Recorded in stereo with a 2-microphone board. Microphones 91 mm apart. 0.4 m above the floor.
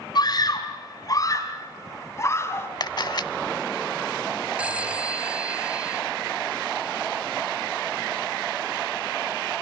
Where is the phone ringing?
15° right (ahead or behind), 2.5 m.